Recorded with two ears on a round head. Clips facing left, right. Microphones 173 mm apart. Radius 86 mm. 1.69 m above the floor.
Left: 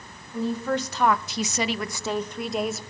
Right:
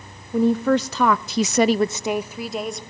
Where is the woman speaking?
45° right (ahead or behind), 1.2 m; by 2.8 s 5° left (ahead or behind), 1.4 m.